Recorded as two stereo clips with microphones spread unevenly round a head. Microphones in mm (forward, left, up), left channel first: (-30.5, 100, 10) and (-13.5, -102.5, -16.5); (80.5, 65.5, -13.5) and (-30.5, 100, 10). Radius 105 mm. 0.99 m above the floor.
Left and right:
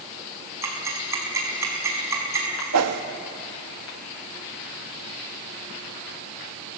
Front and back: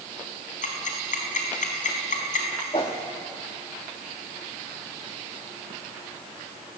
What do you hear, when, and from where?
0.6 s ticking: 5° right, 4.5 m
2.7 s a whoosh: 80° right, 1.2 m